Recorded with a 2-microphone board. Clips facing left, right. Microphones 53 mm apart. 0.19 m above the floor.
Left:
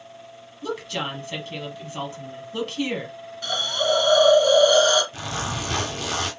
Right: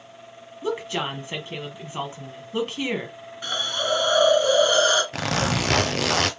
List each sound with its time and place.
0.6 s a woman speaking: 20° right (ahead or behind), 1.1 m
3.4 s a hiss: 20° right (ahead or behind), 2.5 m
5.1 s a zipper: 75° right (ahead or behind), 0.7 m